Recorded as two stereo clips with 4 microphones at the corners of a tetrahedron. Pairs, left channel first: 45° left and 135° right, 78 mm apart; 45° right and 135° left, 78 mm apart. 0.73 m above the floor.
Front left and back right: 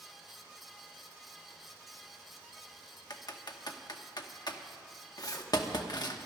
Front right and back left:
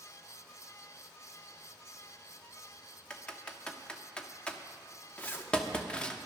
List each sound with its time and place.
3.1 s typing on a keyboard: 30° left, 1.0 m
5.2 s a zipper: 15° left, 1.0 m